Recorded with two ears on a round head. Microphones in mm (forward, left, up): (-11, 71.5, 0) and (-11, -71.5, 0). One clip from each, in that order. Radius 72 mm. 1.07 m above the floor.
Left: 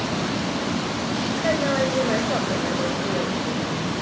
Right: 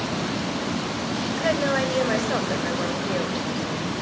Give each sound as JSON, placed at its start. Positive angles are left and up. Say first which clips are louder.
{"t": 1.4, "sound": "a woman speaking", "louder": "even", "side_deg": -70, "distance_m": 6.0}